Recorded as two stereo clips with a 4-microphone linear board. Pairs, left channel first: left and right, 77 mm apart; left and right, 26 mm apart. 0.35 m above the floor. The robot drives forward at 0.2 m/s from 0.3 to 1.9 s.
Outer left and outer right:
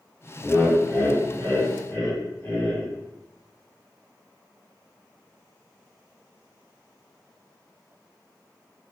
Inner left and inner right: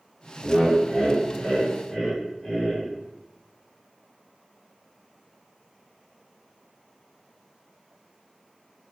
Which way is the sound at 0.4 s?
40° left (ahead or behind).